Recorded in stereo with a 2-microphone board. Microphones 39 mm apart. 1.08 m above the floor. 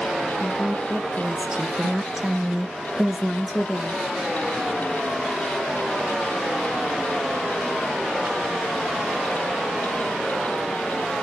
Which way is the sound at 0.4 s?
15° right (ahead or behind).